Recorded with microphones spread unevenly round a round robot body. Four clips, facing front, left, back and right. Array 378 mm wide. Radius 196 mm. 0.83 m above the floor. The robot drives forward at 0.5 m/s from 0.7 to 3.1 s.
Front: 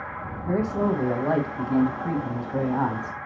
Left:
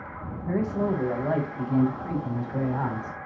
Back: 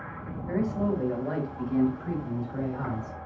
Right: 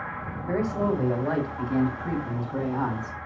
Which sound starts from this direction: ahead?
A man speaking, at 0.5 s.